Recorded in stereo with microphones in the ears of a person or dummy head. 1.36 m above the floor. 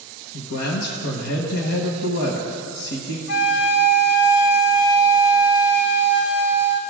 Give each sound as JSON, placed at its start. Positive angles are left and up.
{"t": 0.3, "sound": "a man speaking", "side_deg": 70, "distance_m": 1.2}
{"t": 3.3, "sound": "a flute", "side_deg": 75, "distance_m": 1.1}